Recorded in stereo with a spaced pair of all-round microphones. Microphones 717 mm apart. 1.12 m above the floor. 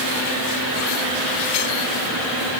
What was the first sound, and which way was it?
Only background noise.